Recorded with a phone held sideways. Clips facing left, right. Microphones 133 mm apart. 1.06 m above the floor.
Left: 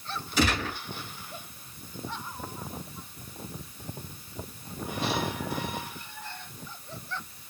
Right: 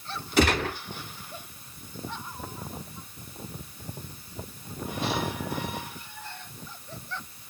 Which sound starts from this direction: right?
A gunshot, at 0.4 s.